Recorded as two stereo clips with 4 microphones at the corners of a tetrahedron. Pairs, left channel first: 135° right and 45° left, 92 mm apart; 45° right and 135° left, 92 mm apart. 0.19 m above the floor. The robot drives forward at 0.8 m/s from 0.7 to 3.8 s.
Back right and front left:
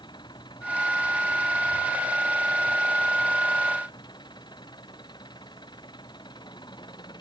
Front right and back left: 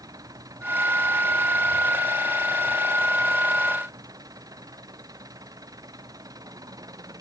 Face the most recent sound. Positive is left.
turn(degrees=-175)